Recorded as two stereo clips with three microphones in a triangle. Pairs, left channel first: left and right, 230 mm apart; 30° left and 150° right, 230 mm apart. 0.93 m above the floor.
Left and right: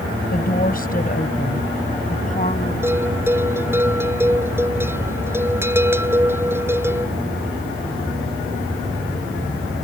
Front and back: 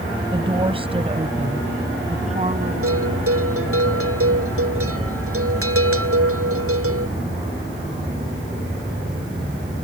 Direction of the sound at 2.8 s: 170° right.